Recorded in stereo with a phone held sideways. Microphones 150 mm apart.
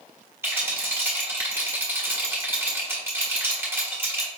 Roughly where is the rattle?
Centre.